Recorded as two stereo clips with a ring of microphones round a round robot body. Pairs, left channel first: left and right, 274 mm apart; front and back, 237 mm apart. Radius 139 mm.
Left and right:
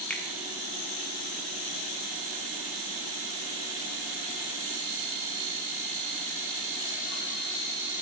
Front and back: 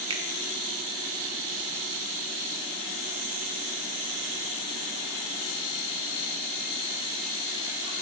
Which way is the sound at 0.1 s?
165° left.